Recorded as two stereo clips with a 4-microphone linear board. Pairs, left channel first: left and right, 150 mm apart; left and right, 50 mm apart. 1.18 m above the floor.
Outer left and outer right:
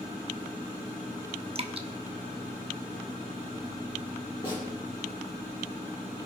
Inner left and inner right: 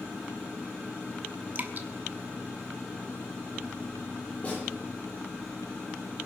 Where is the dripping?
40° right (ahead or behind), 1.1 m.